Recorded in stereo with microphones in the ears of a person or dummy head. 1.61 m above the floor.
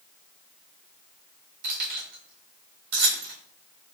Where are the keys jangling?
55° right (ahead or behind), 1.7 m.